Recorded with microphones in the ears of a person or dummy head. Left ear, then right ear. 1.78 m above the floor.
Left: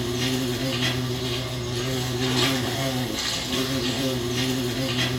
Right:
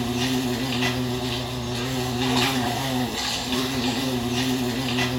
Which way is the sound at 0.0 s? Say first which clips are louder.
Right 1 dB; 35° right (ahead or behind).